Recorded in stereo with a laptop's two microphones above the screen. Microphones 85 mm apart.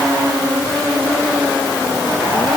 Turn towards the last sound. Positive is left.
No sound to turn to.